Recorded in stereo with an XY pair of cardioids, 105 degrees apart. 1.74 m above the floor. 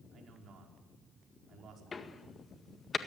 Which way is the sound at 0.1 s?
60° right.